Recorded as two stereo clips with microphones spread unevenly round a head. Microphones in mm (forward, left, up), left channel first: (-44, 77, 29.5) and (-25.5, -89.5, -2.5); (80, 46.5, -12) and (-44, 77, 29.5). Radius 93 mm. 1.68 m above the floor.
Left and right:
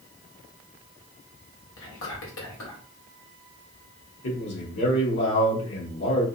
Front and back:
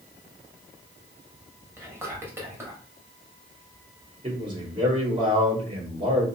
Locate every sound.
1.8 s whispering: 95° left, 2 m
4.2 s a man speaking: 115° left, 2.5 m